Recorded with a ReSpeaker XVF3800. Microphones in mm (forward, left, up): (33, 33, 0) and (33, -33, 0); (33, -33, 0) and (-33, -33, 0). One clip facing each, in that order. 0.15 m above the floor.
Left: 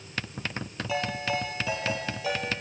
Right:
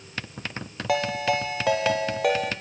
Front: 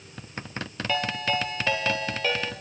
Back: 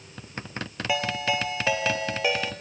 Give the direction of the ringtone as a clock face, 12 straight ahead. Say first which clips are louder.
Right 6 dB, back 1 dB; 3 o'clock.